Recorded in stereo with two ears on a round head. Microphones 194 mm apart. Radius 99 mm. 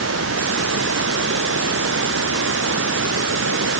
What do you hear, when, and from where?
0.0 s running water: 60° right (ahead or behind)